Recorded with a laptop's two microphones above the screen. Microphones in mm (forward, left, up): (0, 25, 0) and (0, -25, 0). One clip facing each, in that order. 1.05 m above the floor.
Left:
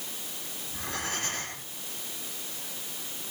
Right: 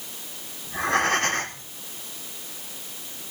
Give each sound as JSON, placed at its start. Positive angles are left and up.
{"t": 0.7, "sound": "breathing", "side_deg": -60, "distance_m": 3.5}